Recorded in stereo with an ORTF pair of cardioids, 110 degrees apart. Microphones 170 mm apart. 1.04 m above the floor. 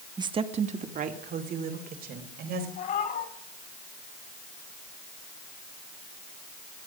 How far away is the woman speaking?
About 1.2 m.